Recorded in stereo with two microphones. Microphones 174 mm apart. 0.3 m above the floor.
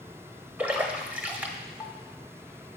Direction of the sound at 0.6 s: 10° right (ahead or behind).